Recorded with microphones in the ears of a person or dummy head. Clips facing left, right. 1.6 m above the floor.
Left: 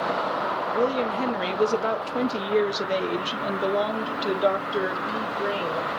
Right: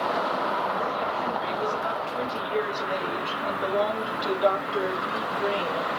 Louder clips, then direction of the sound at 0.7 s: Left 5 dB; 75° left (ahead or behind).